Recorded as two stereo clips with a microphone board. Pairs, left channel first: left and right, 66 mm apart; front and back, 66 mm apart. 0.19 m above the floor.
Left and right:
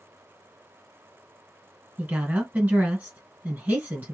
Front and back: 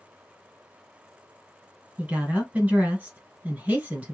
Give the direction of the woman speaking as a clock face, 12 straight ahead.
4 o'clock.